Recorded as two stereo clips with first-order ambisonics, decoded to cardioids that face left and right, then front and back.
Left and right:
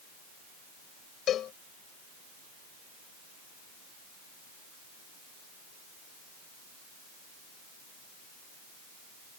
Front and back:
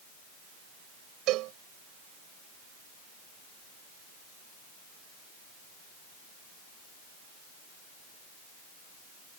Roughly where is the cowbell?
Behind left.